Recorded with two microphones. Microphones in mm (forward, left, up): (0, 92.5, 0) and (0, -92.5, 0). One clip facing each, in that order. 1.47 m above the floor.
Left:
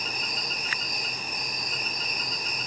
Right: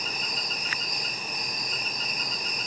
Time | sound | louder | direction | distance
0.0 | an insect | even | 65° left (ahead or behind) | 2 m